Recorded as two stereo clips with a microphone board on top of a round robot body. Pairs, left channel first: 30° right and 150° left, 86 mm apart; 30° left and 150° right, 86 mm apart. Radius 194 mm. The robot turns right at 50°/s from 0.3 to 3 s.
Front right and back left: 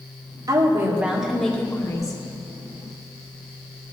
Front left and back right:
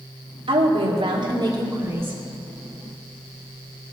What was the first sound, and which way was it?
A woman speaking, 165° right.